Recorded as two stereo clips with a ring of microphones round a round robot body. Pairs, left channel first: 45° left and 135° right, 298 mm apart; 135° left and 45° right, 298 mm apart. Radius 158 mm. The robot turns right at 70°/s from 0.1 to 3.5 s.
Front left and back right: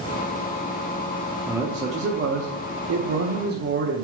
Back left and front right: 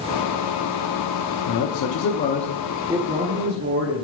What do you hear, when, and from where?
1.5 s a man speaking: 130° left, 0.9 m; by 4.0 s 85° right, 0.9 m